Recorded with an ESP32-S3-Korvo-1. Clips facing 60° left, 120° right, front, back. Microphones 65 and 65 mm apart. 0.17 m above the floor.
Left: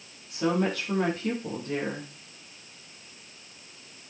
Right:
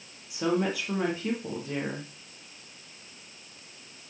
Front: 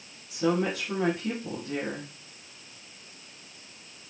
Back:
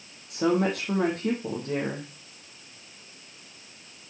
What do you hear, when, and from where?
0.3 s a woman speaking: 155° left, 5.5 m